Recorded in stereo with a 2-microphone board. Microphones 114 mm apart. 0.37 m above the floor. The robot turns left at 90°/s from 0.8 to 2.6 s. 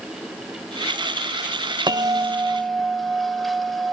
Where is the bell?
115° right, 0.9 m; by 3.9 s straight behind, 0.9 m.